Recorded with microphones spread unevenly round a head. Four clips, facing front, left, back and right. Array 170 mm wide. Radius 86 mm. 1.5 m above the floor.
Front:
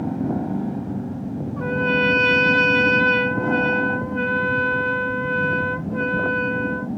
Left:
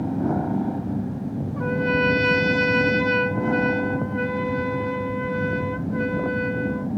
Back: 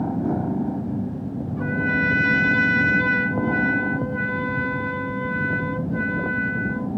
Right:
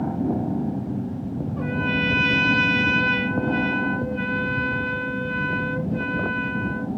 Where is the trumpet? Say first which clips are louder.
Left 4 dB, front 3 dB; 90° left, 1.5 m.